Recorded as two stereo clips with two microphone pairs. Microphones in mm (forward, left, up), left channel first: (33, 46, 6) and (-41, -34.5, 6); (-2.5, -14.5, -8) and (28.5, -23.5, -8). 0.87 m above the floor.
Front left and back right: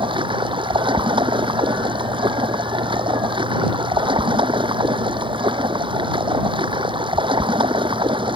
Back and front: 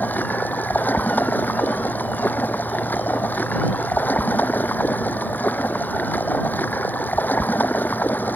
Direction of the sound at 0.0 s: 175° right.